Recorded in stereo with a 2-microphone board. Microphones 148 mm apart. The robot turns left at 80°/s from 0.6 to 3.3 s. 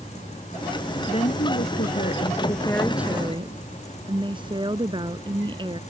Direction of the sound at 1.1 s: 145° left.